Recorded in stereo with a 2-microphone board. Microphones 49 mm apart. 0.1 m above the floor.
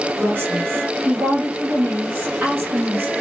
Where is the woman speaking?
45° right (ahead or behind), 3 m.